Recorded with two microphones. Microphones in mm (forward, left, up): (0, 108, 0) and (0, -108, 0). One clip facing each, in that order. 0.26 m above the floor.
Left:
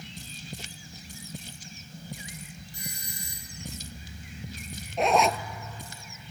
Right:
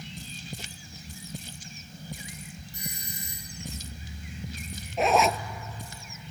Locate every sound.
2.7 s a doorbell: 20° right (ahead or behind), 2 m
5.0 s a zipper: centre (ahead or behind), 0.7 m